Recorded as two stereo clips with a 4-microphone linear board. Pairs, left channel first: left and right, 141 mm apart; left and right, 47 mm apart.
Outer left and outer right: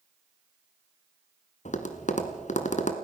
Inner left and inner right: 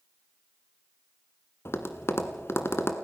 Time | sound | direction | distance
1.6 | tapping | 60° left (ahead or behind) | 1.5 m